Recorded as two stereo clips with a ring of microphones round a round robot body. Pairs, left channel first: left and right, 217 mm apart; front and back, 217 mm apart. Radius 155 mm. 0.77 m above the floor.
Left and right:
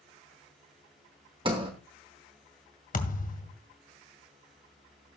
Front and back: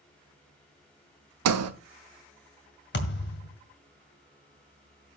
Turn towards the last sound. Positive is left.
turn(degrees=40)